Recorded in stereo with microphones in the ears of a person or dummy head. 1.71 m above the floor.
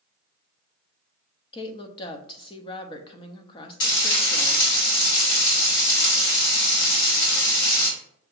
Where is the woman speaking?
25° left (ahead or behind), 0.6 m.